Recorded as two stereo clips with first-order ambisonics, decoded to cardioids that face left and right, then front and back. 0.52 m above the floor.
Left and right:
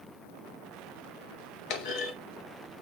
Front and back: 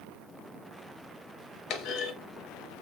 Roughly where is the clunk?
Ahead left.